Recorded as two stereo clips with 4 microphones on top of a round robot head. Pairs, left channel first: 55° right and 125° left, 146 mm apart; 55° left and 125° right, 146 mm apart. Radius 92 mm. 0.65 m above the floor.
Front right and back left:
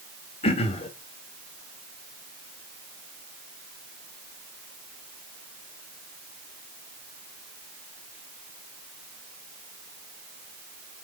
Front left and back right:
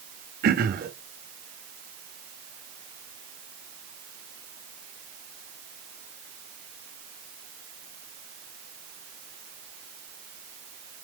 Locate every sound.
0.4 s throat clearing: 105° right, 1.0 m